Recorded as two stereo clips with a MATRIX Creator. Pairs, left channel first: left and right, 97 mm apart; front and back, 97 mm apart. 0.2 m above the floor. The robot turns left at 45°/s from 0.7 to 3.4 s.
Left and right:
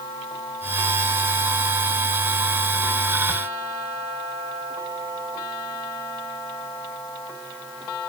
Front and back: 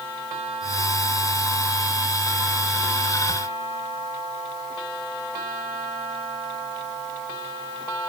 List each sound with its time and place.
Only background noise.